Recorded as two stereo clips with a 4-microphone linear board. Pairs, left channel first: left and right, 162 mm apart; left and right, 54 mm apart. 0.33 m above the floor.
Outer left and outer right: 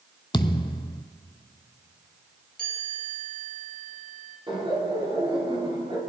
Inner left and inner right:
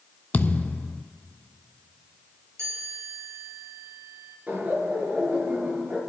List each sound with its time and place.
0.3 s a thud: 30° left (ahead or behind), 0.5 m
2.6 s a chime: 60° right (ahead or behind), 3.5 m
4.5 s laughter: 35° right (ahead or behind), 4 m